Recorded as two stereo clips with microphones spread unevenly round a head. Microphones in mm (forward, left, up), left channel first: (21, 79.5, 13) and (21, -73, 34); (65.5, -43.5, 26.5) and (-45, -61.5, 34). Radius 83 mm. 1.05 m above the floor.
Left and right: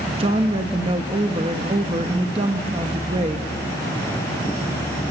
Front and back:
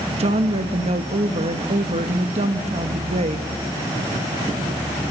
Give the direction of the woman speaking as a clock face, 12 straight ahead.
5 o'clock.